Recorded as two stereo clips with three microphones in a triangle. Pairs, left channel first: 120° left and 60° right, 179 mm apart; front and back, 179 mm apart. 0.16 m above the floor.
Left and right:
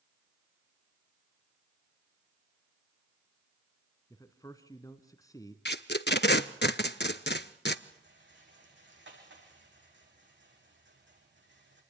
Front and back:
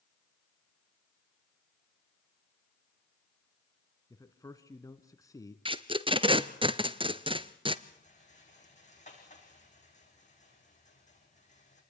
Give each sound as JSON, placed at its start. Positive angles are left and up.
{"t": 4.1, "sound": "a man speaking", "azimuth_deg": 60, "distance_m": 1.5}
{"t": 5.7, "sound": "tape being pulled", "azimuth_deg": 120, "distance_m": 0.8}
{"t": 7.9, "sound": "a rattle", "azimuth_deg": -50, "distance_m": 7.0}